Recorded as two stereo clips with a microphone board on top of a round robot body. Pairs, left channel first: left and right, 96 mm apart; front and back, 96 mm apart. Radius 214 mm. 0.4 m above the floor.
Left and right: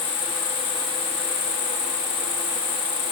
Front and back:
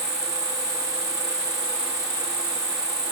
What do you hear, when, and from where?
0.0 s an insect: 125° left, 1.1 m